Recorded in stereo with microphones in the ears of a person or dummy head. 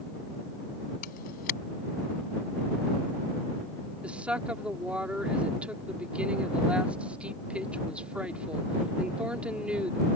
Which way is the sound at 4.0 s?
5° right (ahead or behind).